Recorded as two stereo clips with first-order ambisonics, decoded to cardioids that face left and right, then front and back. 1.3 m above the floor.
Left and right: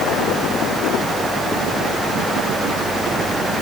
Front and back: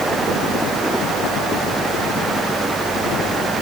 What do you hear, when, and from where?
Only background noise.